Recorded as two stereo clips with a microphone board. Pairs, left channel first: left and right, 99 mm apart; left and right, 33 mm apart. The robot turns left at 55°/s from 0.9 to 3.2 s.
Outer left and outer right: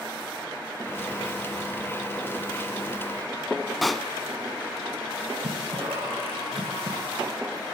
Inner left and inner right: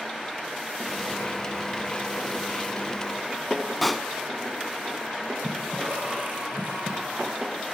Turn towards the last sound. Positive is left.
turn(degrees=-75)  # may be behind; listen again after turning